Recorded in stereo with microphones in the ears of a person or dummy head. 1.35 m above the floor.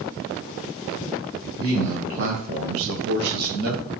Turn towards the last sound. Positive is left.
turn(degrees=-45)  # may be behind; listen again after turning